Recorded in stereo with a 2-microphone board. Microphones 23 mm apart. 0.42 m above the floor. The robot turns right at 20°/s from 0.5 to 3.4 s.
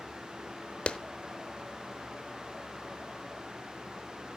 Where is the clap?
55° left (ahead or behind), 0.8 m.